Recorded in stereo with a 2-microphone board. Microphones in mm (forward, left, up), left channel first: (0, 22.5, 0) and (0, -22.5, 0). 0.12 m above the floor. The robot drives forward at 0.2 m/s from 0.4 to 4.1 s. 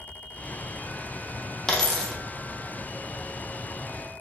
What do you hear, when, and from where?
1.7 s a dropped coin: 10° left (ahead or behind), 0.7 m